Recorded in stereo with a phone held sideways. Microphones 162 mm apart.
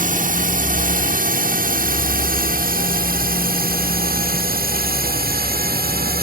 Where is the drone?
50° right (ahead or behind); by 6.2 s 65° right (ahead or behind).